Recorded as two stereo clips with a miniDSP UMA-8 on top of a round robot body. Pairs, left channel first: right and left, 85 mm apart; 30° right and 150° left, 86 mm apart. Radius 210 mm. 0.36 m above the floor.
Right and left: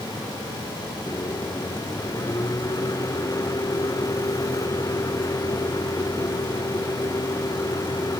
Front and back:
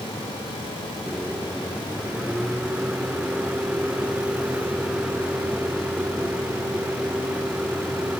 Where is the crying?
No crying in this recording.